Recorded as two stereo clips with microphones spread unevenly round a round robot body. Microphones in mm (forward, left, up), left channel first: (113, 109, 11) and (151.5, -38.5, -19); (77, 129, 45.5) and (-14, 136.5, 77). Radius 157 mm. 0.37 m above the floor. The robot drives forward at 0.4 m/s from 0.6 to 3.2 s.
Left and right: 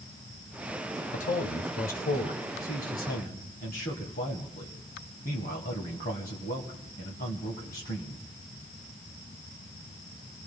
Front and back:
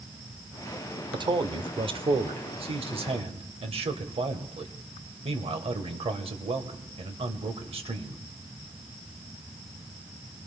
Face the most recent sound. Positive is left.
turn(degrees=155)